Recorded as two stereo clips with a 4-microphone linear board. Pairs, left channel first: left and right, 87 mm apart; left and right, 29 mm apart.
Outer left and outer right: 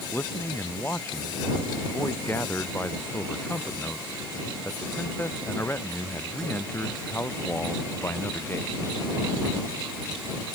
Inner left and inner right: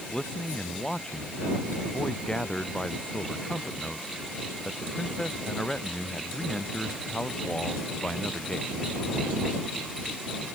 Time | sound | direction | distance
0.1 | a man speaking | 25° left (ahead or behind) | ?